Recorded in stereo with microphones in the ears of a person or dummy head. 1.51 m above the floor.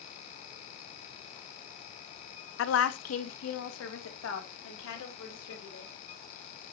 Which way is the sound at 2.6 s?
60° left (ahead or behind).